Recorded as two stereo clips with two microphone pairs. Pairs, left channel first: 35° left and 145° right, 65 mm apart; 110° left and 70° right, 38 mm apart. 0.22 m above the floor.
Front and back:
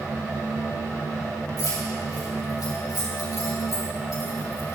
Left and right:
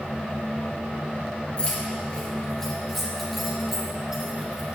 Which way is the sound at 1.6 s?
55° left.